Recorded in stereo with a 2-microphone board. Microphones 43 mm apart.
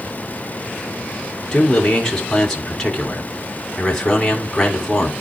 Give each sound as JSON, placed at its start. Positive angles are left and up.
{"t": 1.5, "sound": "a man speaking", "side_deg": 10, "distance_m": 3.0}